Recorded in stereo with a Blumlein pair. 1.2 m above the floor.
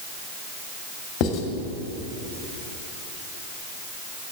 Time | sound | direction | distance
1.2 | writing | 35° left | 1.7 m